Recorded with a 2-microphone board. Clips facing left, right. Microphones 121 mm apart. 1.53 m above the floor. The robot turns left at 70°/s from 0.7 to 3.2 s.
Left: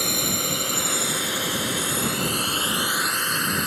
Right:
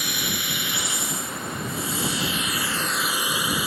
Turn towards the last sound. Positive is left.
turn(degrees=-5)  # may be behind; listen again after turning